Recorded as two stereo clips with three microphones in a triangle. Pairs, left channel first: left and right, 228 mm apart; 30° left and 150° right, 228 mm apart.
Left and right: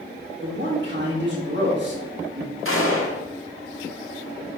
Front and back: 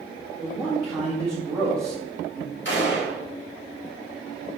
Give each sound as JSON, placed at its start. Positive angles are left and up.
{"t": 0.4, "sound": "a man speaking", "azimuth_deg": -75, "distance_m": 1.6}
{"t": 2.6, "sound": "a gunshot", "azimuth_deg": 65, "distance_m": 1.3}